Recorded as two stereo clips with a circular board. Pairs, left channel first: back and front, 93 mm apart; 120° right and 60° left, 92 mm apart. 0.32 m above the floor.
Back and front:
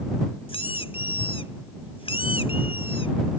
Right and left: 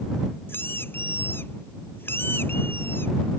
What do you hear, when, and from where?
0.5 s a squeak: 175° left